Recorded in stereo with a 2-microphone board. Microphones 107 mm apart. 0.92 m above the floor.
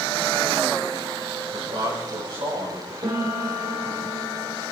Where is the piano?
50° right (ahead or behind), 2 m.